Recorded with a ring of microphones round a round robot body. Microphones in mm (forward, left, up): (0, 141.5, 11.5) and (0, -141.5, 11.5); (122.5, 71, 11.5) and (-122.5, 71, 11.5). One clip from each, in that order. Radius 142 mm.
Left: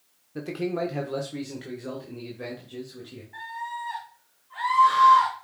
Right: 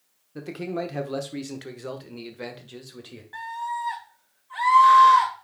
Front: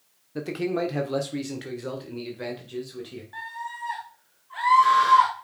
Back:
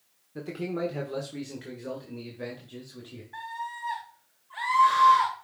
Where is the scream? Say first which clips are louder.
Right 4 dB, front 1 dB; 70° right, 1.8 m.